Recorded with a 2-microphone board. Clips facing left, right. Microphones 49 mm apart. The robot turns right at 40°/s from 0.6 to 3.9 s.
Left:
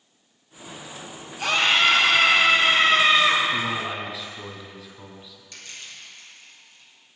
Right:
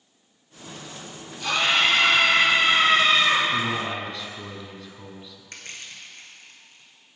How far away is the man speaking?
About 1.3 m.